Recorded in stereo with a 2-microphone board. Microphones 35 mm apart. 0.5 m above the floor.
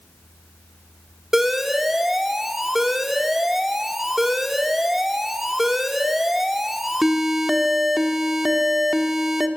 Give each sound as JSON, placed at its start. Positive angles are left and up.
{"t": 1.3, "sound": "an alarm", "side_deg": -10, "distance_m": 1.4}